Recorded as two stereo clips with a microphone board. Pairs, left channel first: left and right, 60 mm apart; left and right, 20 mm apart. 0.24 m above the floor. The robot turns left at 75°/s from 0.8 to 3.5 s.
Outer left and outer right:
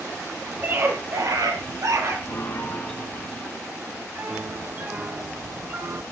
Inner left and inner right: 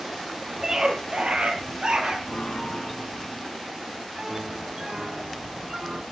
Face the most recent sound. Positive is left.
turn(degrees=-30)